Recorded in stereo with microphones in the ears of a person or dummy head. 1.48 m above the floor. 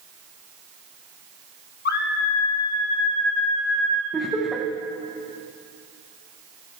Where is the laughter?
Centre (ahead or behind), 1.4 m.